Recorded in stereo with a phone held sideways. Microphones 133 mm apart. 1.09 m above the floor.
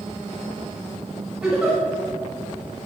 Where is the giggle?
5° right (ahead or behind), 7 m.